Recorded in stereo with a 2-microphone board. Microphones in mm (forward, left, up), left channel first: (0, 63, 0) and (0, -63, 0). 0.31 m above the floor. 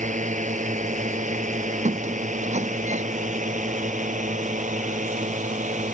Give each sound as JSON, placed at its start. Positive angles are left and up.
{"t": 0.0, "sound": "a drone", "side_deg": -75}
{"t": 1.9, "sound": "a squeak", "side_deg": -70}